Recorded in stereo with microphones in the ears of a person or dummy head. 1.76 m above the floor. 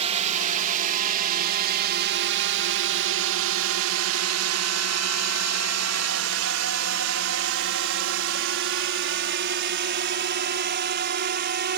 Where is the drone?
40° right (ahead or behind); by 11.8 s 50° right (ahead or behind).